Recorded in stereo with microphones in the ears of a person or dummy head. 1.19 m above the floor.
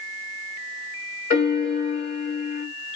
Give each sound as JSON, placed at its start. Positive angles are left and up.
{"t": 1.3, "sound": "a piano", "side_deg": 40, "distance_m": 1.9}